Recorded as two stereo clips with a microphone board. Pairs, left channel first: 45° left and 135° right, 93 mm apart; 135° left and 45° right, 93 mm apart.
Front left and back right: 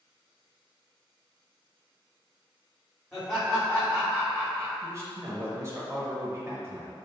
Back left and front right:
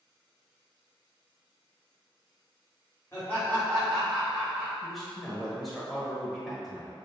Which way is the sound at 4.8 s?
135° right.